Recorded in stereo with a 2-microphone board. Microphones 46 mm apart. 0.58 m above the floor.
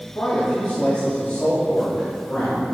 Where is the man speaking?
50° left (ahead or behind), 3 m.